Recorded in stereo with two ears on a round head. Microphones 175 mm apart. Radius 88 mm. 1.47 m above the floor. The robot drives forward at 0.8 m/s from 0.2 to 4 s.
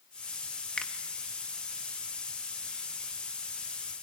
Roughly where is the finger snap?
Centre.